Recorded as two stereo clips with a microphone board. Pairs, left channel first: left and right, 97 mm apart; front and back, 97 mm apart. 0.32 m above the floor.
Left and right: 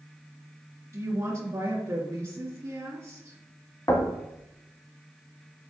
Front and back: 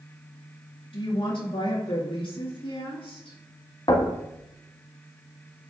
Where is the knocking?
35° left, 1.5 m.